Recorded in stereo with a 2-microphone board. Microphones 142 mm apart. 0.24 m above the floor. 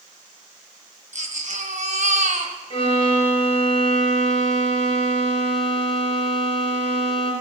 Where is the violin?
40° left (ahead or behind), 3 m.